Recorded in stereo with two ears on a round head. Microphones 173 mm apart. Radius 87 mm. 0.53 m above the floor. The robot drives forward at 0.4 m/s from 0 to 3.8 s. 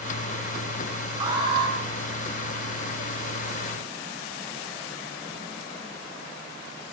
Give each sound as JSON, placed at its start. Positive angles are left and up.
{"t": 1.2, "sound": "an alarm", "side_deg": -25, "distance_m": 5.0}